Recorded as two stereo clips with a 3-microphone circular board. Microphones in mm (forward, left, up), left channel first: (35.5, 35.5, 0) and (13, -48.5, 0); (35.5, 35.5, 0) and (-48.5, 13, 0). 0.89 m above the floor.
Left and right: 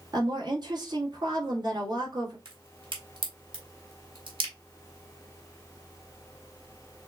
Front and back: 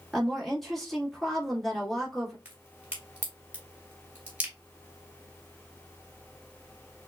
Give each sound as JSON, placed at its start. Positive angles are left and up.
{"t": 0.1, "sound": "a woman speaking", "azimuth_deg": -75, "distance_m": 1.7}
{"t": 2.5, "sound": "a crack", "azimuth_deg": -90, "distance_m": 2.0}